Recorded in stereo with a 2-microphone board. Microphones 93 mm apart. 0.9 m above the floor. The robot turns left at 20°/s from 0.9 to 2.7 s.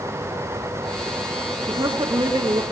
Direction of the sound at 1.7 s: 50° right (ahead or behind).